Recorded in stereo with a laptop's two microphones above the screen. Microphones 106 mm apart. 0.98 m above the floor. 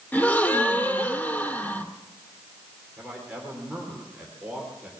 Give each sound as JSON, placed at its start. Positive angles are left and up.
{"t": 0.1, "sound": "a gasp", "side_deg": 20, "distance_m": 1.6}
{"t": 3.0, "sound": "a man speaking", "side_deg": -15, "distance_m": 3.0}